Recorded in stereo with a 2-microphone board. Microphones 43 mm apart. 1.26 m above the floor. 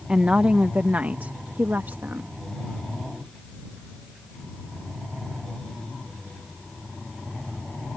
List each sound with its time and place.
0.1 s a woman speaking: 20° right (ahead or behind); by 2.3 s 50° right (ahead or behind)